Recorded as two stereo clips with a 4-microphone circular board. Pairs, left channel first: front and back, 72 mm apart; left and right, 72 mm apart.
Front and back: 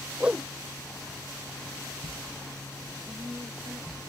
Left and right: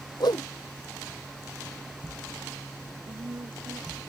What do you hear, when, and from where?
0.2 s a whoosh: 105° left
3.1 s a woman speaking: 105° right